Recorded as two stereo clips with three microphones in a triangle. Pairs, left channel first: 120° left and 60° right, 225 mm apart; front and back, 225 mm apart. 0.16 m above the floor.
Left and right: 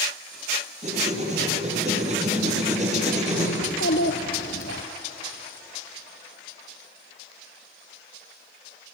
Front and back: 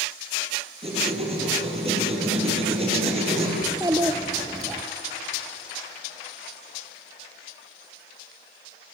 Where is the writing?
120° right, 5.5 m.